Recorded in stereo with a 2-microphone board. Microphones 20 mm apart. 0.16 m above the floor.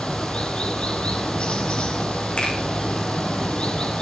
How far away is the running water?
About 4.5 m.